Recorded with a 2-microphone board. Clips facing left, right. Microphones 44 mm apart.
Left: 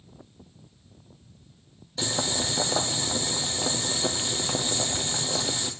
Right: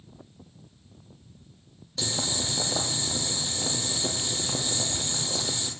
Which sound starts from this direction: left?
Boiling, at 2.0 s.